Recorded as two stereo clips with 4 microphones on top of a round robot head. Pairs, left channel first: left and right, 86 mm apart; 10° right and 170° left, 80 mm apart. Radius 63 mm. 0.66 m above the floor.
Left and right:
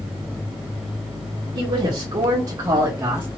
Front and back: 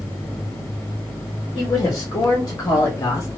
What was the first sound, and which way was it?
A woman speaking, 50° right.